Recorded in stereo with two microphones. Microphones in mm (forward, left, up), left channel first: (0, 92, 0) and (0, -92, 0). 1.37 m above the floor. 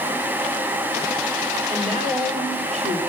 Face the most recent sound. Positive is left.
turn(degrees=-40)  # may be behind; listen again after turning